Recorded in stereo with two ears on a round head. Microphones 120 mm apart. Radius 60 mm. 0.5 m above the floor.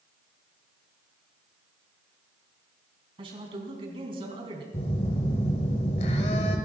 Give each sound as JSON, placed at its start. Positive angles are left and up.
{"t": 3.2, "sound": "a man speaking", "side_deg": -40, "distance_m": 4.5}
{"t": 4.7, "sound": "a phone buzzing", "side_deg": 50, "distance_m": 2.5}